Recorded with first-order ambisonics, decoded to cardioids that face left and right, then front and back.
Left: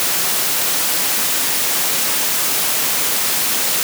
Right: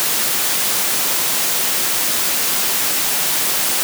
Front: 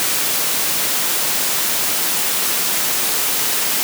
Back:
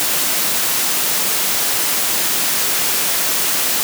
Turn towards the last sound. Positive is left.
No sound to turn to.